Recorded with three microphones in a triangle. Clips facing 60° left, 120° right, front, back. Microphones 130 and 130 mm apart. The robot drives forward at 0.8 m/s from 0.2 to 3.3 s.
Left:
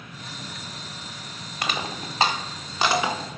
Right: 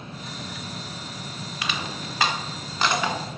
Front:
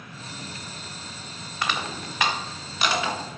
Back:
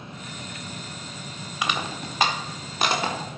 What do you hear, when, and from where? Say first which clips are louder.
1.6 s crushing: left 3 dB, back 1 dB; 100° left, 1.2 m; by 3.1 s 140° left, 1.9 m